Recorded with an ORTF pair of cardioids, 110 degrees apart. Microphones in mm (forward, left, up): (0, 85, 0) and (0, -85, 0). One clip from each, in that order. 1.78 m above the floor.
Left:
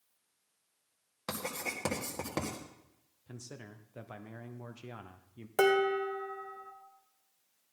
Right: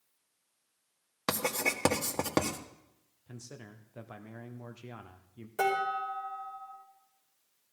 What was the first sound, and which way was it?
Writing, 45° right.